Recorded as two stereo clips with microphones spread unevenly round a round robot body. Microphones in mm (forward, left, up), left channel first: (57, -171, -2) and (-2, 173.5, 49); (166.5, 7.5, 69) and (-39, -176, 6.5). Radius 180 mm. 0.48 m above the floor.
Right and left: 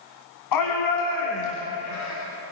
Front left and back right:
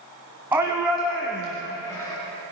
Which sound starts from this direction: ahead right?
A shout, at 0.5 s.